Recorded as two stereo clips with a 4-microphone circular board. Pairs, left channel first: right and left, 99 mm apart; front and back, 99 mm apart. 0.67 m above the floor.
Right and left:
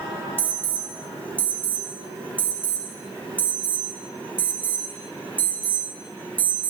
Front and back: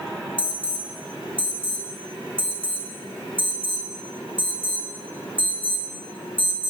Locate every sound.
0.4 s an alarm: 15° right, 1.2 m